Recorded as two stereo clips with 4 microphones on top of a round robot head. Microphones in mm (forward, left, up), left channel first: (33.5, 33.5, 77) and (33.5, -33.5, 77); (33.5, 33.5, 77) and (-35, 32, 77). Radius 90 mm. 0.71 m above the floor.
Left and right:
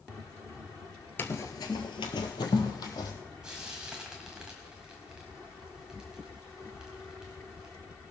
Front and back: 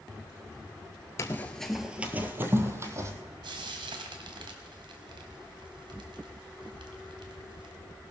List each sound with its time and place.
1.2 s running footsteps: 40° left, 0.9 m; by 3.1 s 135° left, 2 m
3.4 s frying: 170° right, 1.5 m